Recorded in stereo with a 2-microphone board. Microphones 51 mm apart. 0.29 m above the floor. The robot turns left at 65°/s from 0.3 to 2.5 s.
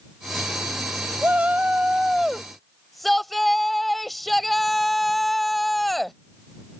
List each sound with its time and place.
1.2 s a shout: 100° right; by 6.2 s 175° left